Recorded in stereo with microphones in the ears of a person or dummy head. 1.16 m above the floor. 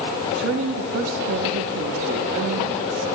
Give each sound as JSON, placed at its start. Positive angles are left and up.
{"t": 0.4, "sound": "a woman speaking", "side_deg": -65, "distance_m": 0.8}